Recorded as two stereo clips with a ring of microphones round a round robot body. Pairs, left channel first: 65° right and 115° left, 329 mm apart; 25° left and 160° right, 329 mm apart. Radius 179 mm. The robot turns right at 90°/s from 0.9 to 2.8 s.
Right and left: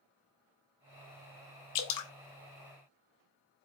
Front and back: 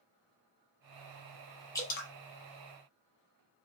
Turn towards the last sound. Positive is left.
turn(degrees=35)